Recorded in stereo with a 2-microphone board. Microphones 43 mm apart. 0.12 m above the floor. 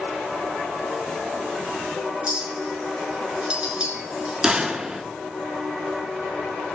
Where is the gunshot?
15° right (ahead or behind), 0.7 m.